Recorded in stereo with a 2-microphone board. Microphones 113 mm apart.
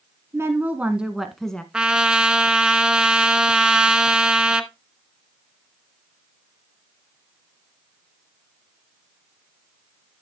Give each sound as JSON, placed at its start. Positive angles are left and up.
{"t": 0.3, "sound": "a woman speaking", "side_deg": -25, "distance_m": 1.3}
{"t": 1.7, "sound": "a trumpet", "side_deg": -10, "distance_m": 0.9}